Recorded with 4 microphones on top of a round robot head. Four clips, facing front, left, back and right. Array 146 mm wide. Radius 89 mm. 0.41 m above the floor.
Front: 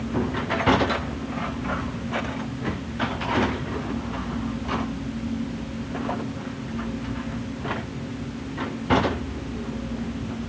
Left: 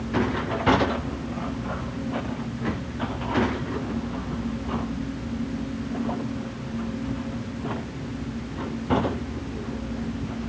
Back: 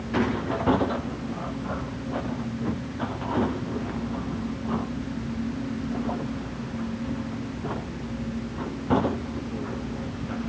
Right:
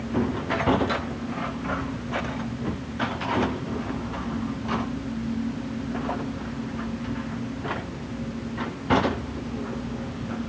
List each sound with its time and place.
Only background noise.